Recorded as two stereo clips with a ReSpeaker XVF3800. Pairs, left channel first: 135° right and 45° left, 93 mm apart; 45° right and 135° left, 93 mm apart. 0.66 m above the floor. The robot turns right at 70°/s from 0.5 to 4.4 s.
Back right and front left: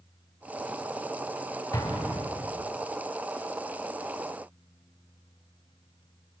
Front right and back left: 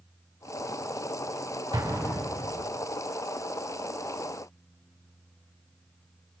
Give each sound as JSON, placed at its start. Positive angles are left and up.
{"t": 1.7, "sound": "an explosion", "azimuth_deg": 180, "distance_m": 4.0}